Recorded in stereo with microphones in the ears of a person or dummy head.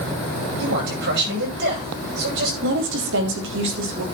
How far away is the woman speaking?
About 3 m.